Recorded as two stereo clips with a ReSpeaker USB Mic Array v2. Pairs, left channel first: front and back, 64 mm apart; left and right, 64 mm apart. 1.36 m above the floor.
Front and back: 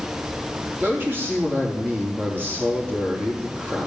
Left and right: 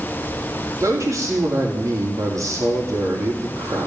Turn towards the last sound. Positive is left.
turn(degrees=-125)